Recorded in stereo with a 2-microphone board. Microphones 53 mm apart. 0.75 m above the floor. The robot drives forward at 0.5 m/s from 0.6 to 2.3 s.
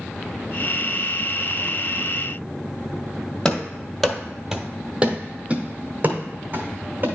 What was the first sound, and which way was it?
Running footsteps, 20° left (ahead or behind).